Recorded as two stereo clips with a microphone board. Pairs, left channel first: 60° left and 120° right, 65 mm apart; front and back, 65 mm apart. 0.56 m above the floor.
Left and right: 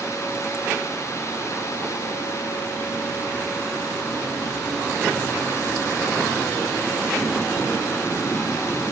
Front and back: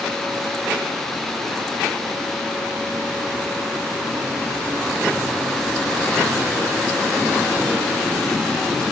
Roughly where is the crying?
I don't hear crying.